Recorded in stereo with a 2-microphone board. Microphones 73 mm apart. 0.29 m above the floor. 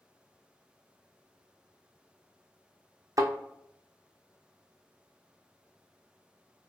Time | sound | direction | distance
3.2 | a thud | 50° right (ahead or behind) | 0.6 m